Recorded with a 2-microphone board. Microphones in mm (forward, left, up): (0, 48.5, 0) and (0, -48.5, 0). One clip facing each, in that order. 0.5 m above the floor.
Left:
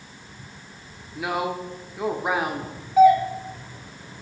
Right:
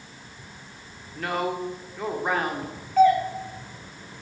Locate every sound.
1.1 s a woman speaking: 10° left (ahead or behind), 0.9 m
3.0 s a doorbell: 10° left (ahead or behind), 1.5 m